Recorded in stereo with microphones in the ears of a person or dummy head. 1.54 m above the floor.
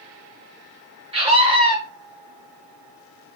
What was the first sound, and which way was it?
A scream, 35° right (ahead or behind).